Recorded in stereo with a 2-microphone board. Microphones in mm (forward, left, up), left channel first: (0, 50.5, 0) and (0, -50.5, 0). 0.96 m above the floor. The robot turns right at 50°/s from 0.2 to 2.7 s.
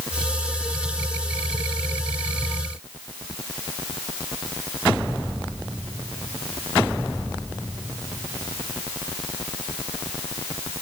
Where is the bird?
No bird in this recording.